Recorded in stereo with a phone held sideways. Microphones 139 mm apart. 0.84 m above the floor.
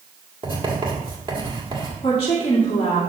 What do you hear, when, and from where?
0.4 s writing: 35° right (ahead or behind), 2.0 m
2.0 s a woman speaking: 40° left (ahead or behind), 2 m